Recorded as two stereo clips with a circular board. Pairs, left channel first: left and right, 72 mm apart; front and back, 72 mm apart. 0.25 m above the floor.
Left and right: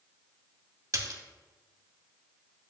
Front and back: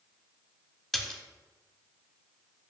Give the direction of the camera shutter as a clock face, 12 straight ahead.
No camera shutter in this recording.